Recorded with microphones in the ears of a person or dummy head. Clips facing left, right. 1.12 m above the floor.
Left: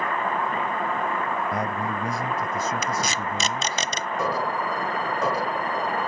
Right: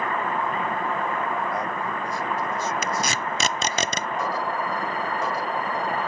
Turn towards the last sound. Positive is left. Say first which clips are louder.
# left 2 dB
turn(degrees=60)  # may be behind; listen again after turning